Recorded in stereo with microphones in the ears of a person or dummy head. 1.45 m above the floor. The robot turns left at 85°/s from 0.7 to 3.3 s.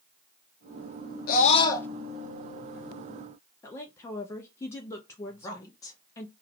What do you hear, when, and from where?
1.3 s a scream: 70° left, 0.8 m; by 1.9 s 15° left, 0.8 m
3.6 s a woman speaking: 20° left (ahead or behind), 0.6 m
5.3 s a woman speaking: 25° left (ahead or behind), 1.3 m